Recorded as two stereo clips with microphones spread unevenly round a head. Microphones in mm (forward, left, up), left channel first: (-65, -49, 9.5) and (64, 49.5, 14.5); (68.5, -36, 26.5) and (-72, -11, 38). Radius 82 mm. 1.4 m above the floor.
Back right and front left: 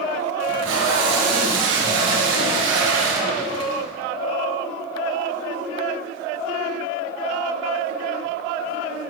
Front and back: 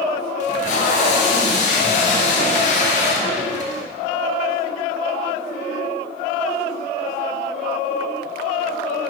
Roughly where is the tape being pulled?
Ahead left.